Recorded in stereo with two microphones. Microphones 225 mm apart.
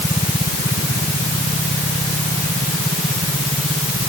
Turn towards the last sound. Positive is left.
No sound to turn to.